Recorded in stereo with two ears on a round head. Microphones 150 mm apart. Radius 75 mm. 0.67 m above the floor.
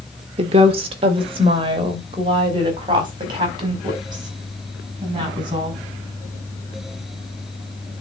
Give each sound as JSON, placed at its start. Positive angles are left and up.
{"t": 0.4, "sound": "a woman speaking", "side_deg": -35, "distance_m": 1.4}